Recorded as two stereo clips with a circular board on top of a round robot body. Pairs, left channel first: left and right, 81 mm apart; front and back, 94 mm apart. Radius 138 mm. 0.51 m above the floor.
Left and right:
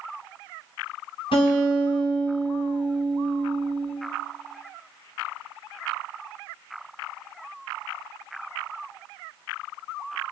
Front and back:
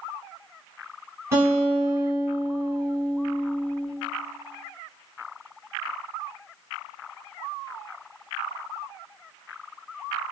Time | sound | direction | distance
1.3 | a guitar | 115° left | 1.3 m